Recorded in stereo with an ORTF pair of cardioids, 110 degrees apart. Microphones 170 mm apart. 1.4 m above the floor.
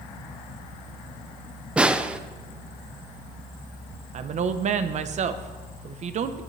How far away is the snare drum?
About 0.6 m.